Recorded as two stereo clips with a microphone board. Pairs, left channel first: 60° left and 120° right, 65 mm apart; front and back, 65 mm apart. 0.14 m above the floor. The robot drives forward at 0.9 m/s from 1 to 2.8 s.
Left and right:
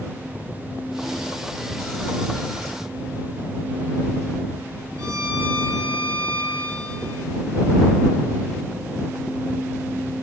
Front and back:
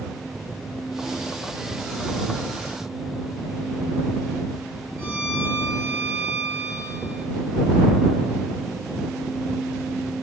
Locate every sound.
5.0 s a violin: 130° right, 0.9 m